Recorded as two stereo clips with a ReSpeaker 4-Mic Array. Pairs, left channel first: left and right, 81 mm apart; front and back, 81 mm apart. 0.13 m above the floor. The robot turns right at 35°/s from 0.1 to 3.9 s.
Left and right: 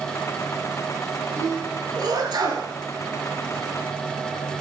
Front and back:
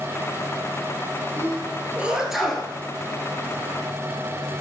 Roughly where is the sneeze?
Behind right.